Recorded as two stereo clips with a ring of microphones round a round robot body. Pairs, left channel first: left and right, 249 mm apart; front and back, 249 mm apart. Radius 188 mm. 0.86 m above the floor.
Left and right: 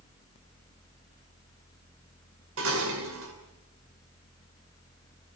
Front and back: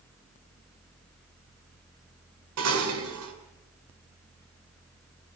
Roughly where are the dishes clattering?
Behind right.